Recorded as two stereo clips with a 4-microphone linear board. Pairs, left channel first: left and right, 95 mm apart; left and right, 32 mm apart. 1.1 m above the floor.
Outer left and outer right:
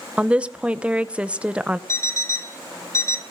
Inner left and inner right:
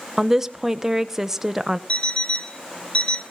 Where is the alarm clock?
30° left (ahead or behind), 1.3 m.